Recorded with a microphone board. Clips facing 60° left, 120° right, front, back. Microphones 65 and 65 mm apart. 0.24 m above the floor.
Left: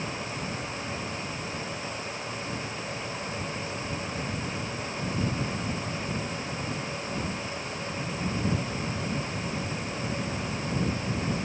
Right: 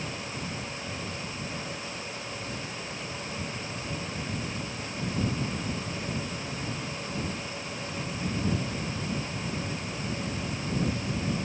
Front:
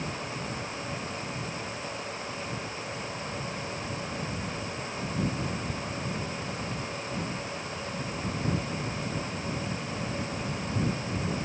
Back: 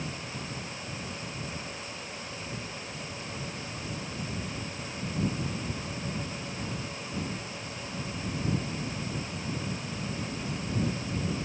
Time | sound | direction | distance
1.5 | breathing | 135° right | ?